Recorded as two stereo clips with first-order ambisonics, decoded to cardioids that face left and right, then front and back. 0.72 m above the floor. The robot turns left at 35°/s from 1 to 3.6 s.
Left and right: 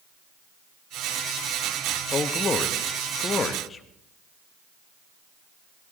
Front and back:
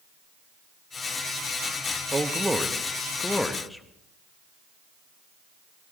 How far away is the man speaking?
About 0.7 m.